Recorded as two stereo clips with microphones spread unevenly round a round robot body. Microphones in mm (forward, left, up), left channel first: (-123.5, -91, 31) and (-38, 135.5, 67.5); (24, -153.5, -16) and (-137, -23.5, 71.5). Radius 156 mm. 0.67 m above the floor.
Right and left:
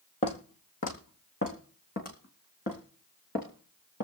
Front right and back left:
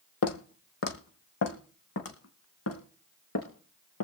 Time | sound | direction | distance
0.2 | footsteps | 35° right | 1.3 m